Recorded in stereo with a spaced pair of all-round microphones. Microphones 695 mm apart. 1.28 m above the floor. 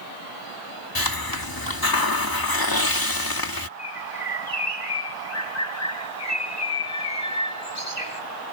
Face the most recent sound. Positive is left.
turn(degrees=75)  # may be behind; listen again after turning